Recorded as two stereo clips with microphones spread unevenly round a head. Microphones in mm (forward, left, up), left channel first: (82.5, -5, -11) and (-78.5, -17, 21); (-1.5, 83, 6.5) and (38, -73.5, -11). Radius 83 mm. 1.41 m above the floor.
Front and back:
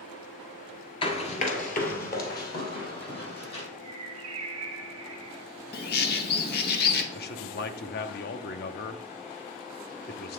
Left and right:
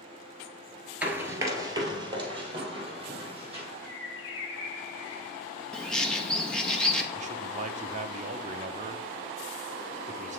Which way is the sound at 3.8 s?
125° left.